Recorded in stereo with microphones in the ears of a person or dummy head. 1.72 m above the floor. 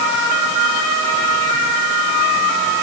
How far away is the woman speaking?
No woman speaking in this recording.